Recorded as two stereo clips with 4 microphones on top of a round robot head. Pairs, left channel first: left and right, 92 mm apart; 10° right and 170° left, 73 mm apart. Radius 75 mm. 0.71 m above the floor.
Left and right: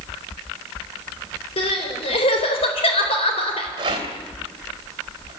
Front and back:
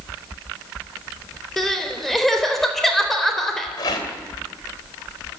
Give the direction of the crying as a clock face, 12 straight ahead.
9 o'clock.